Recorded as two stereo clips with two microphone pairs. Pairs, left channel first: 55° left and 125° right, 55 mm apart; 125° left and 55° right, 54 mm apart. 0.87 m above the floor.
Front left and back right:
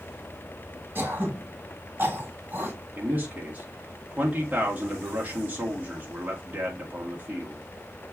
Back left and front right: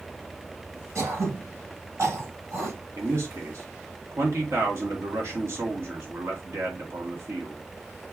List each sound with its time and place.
0.9 s throat clearing: 75° right, 4.5 m
3.0 s a man speaking: 70° right, 2 m